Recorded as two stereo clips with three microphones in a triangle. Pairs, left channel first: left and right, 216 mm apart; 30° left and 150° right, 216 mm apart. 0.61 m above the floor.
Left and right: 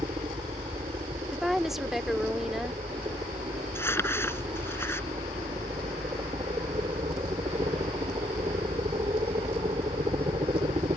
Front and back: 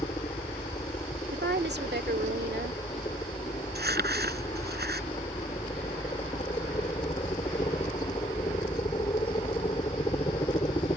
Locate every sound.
0.0 s a helicopter: 30° right
1.3 s a woman speaking: straight behind
3.8 s crumpling: 170° left